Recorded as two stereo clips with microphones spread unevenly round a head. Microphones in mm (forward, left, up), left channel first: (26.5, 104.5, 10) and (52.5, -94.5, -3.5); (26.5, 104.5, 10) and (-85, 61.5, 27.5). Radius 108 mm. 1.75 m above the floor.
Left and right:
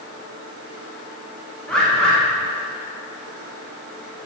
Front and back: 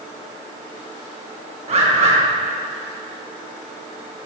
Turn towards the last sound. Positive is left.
turn(degrees=180)